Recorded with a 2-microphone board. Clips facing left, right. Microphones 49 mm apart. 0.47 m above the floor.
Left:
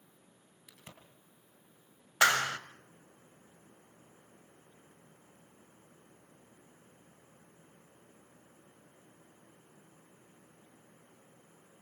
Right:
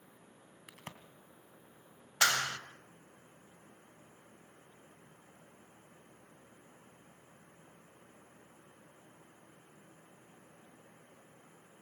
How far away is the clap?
About 1.6 m.